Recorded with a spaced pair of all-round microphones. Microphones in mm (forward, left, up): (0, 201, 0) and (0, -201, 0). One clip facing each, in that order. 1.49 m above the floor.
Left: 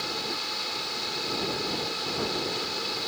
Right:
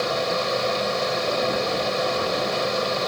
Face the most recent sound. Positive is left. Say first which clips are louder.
# right 12 dB
turn(degrees=-85)